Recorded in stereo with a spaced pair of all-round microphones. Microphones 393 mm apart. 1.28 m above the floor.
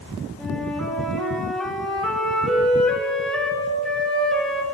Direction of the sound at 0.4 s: Centre (ahead or behind).